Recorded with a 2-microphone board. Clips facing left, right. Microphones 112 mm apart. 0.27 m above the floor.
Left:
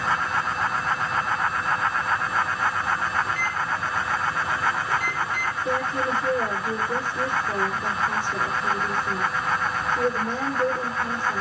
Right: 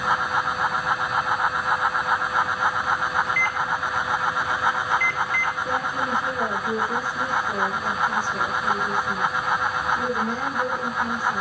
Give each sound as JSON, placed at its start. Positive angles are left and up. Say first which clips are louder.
{"t": 3.2, "sound": "a microwave", "louder": "right 2 dB", "side_deg": 15, "distance_m": 4.0}
{"t": 5.7, "sound": "a woman speaking", "louder": "left 4 dB", "side_deg": 10, "distance_m": 8.0}